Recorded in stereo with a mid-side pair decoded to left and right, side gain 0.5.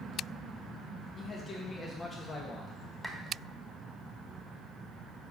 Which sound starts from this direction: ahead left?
A man speaking, at 1.2 s.